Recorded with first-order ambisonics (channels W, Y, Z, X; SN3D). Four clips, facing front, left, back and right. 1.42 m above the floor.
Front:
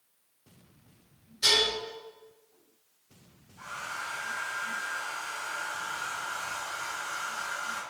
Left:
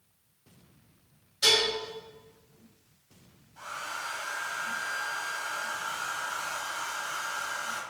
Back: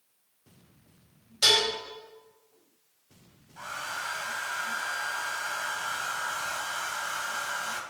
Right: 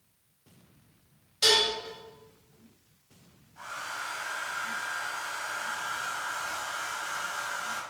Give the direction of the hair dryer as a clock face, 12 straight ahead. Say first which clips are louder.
Even, back 2 dB; 6 o'clock.